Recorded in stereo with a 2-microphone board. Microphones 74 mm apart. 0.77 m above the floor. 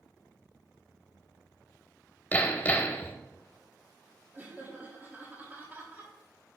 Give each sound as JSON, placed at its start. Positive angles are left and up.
{"t": 2.3, "sound": "hammering", "side_deg": 25, "distance_m": 0.7}
{"t": 4.3, "sound": "laughter", "side_deg": -20, "distance_m": 1.3}